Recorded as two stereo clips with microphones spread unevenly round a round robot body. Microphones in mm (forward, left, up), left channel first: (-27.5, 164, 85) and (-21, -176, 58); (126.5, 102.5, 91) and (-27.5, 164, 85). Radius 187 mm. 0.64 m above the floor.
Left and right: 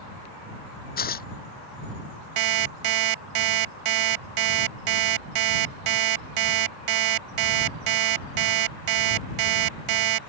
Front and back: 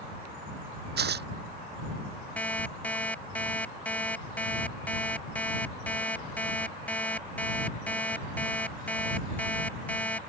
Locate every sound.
1.0 s tearing paper: 155° left
2.4 s an alarm clock: 105° right